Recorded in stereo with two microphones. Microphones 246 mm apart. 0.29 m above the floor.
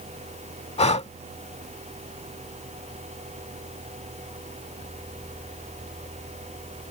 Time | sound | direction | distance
0.8 | breathing | 25° left (ahead or behind) | ?